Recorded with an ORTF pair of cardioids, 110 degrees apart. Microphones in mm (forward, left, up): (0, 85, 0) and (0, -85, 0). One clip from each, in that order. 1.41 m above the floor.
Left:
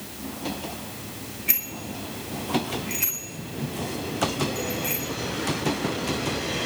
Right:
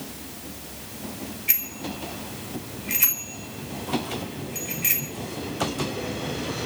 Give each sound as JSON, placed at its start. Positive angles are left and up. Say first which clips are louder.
{"t": 1.5, "sound": "a bicycle bell", "louder": "even", "azimuth_deg": 0, "distance_m": 3.5}